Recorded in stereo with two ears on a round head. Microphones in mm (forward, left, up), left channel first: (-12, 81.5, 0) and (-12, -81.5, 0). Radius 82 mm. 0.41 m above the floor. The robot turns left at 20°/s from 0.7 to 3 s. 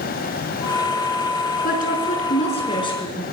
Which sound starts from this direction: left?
A woman speaking, at 1.6 s.